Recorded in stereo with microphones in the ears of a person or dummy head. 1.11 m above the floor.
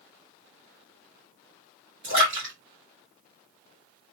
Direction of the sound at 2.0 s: 60° right (ahead or behind).